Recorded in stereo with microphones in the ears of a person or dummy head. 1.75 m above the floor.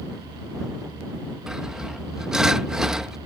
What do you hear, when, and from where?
1.5 s sawing: 5° right (ahead or behind)